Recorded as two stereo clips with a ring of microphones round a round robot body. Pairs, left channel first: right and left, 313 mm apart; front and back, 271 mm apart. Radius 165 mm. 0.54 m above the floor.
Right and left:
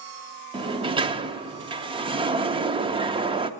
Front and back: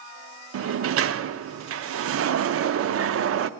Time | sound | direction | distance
0.5 | a sliding door | 160° left | 0.6 m